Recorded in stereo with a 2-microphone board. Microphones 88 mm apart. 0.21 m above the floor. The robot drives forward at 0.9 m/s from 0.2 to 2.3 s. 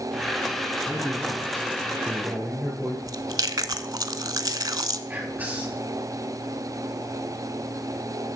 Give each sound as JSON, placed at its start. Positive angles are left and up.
{"t": 0.8, "sound": "a man speaking", "side_deg": 0, "distance_m": 3.0}
{"t": 3.1, "sound": "chewing", "side_deg": -50, "distance_m": 0.6}
{"t": 5.1, "sound": "whispering", "side_deg": -15, "distance_m": 3.5}